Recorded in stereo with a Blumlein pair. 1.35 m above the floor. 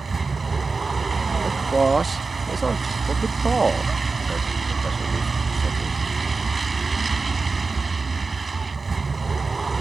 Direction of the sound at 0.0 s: 10° right.